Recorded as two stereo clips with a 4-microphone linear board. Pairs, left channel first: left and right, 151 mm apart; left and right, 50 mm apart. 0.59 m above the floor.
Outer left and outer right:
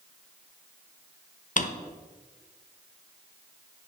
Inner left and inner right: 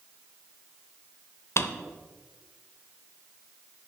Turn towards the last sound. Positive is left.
turn(degrees=60)  # may be behind; listen again after turning